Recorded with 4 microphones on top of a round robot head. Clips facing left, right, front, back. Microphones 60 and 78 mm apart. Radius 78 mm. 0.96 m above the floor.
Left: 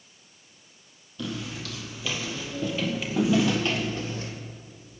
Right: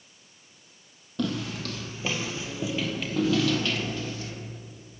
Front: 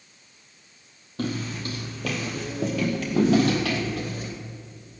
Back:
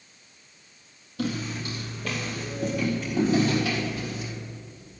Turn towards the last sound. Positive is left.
turn(degrees=40)